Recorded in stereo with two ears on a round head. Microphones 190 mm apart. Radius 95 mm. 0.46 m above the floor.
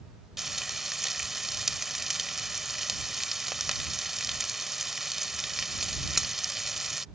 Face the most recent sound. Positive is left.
turn(degrees=0)  # may be behind; listen again after turning